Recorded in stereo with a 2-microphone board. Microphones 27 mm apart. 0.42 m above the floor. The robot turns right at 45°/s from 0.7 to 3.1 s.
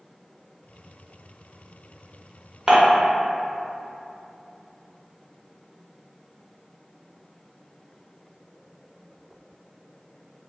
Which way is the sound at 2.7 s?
30° right (ahead or behind).